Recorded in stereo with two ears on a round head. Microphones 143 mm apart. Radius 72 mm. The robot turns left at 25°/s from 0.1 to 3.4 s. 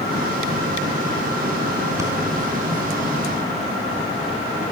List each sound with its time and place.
2.0 s breathing: 20° right (ahead or behind), 4.5 m